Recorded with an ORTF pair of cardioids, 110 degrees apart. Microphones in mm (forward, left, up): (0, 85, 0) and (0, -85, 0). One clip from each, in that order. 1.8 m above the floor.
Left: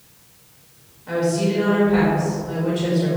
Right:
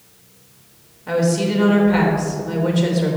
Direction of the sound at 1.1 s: 35° right.